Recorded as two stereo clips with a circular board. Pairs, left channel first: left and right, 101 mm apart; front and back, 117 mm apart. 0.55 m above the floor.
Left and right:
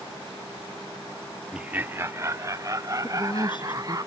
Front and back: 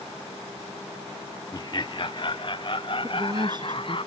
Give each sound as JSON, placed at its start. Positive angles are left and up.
{"t": 1.5, "sound": "laughter", "azimuth_deg": -10}
{"t": 3.0, "sound": "a woman speaking", "azimuth_deg": 130}